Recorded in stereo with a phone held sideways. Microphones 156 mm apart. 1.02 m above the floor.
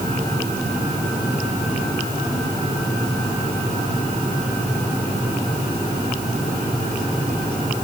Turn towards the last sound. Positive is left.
No sound to turn to.